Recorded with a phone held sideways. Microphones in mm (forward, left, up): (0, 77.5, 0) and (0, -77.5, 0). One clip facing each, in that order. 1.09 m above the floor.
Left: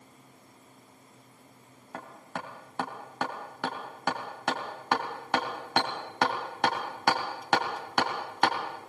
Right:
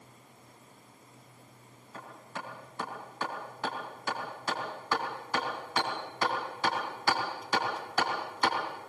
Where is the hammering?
70° left (ahead or behind), 3.5 m.